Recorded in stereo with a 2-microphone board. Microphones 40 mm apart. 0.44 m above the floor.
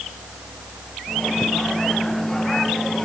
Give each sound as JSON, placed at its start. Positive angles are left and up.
{"t": 1.1, "sound": "a microwave", "side_deg": 5}